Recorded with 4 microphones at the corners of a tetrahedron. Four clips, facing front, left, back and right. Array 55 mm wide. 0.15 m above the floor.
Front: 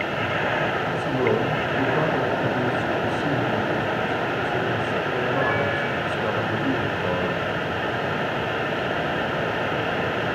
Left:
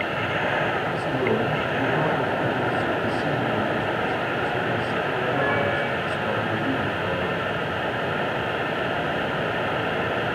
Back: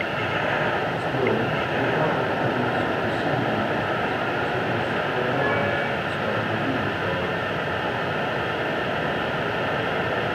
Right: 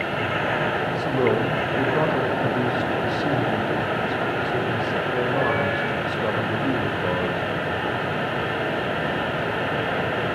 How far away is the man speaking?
About 5 m.